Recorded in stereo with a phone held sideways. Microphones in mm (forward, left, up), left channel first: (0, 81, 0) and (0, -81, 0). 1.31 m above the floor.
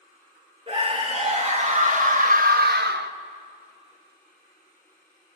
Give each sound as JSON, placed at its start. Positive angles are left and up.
{"t": 0.7, "sound": "a scream", "side_deg": -40, "distance_m": 2.5}